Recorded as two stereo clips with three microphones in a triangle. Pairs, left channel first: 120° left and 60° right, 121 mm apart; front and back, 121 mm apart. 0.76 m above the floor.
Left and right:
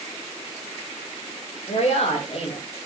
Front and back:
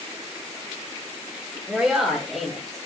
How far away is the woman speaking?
About 3 m.